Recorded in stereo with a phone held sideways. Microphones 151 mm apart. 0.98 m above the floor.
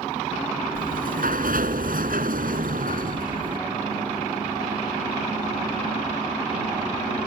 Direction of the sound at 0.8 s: 75° right (ahead or behind).